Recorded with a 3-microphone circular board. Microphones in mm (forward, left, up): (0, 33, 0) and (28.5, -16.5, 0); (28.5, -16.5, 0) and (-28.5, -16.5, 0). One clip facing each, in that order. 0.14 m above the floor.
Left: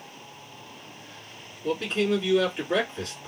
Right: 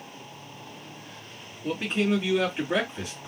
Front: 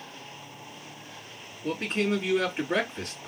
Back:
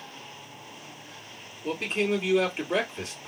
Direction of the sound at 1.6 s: 15° left.